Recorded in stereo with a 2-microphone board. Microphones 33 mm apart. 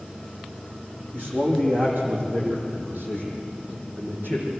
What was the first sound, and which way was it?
A man speaking, 50° right (ahead or behind).